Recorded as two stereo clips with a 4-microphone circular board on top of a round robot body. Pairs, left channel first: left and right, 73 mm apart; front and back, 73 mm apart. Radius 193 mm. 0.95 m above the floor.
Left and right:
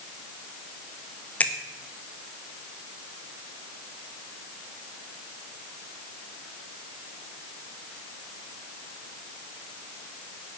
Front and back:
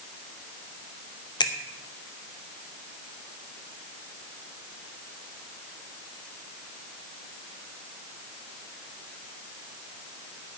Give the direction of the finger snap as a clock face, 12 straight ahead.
11 o'clock.